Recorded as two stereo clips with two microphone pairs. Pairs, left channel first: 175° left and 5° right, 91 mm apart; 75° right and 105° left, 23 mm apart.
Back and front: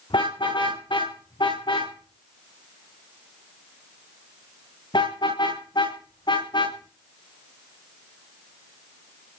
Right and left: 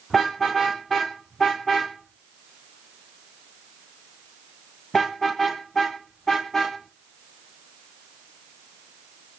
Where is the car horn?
160° right, 8 m; by 9.4 s 150° right, 14 m.